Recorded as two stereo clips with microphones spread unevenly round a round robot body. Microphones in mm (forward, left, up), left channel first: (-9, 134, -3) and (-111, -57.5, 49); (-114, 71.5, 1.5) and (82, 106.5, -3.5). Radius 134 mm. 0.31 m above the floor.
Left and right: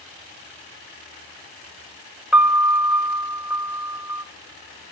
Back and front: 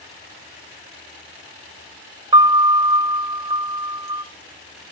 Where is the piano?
Straight ahead, 0.8 m.